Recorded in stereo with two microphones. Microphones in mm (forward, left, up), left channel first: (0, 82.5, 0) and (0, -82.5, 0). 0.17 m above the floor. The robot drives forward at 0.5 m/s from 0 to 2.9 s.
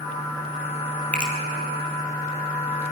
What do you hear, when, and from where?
1.1 s a finger snap: 10° left (ahead or behind), 3.5 m